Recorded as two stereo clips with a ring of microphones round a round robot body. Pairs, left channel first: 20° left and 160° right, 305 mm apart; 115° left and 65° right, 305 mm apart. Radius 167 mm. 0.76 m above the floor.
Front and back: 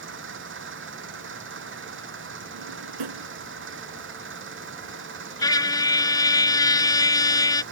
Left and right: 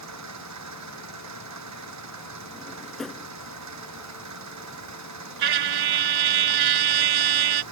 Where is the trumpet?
55° right.